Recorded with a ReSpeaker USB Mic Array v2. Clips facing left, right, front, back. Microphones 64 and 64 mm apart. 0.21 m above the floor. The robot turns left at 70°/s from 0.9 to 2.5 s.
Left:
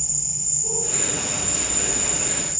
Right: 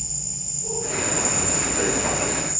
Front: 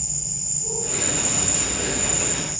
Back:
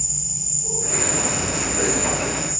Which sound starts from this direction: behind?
An insect, at 0.0 s.